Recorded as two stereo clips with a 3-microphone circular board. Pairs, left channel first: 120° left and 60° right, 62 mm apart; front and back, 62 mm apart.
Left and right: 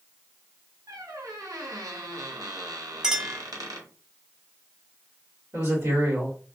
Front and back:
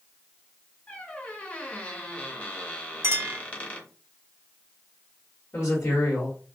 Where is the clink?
135° right, 0.8 m.